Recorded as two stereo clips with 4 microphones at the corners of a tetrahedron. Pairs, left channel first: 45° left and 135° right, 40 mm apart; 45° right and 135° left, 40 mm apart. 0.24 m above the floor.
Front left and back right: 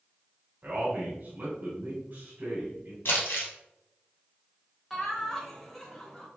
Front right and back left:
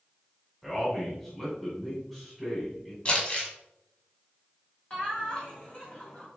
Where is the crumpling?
15° left, 1.7 m.